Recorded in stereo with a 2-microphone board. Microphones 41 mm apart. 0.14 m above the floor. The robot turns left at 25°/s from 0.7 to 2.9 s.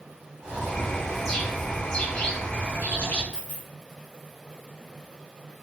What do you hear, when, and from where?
0.4 s a bird: 160° right, 1.2 m; by 3.2 s 145° left, 1.2 m
3.3 s a dropped coin: 20° left (ahead or behind), 1.4 m